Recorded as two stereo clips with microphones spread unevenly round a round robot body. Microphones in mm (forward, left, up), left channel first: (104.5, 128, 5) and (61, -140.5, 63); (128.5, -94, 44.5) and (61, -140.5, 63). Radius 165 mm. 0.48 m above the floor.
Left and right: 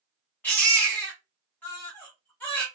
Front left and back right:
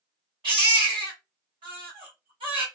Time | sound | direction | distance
0.4 | a baby crying | 165° left | 0.6 m